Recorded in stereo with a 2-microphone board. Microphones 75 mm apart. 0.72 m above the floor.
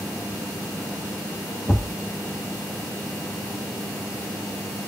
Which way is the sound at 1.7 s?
40° left (ahead or behind).